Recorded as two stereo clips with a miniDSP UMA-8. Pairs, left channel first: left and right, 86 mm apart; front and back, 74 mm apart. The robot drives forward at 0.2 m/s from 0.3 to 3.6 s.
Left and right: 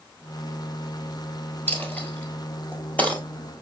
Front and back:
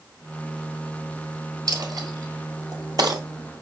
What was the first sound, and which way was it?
A dropped coin, 155° left.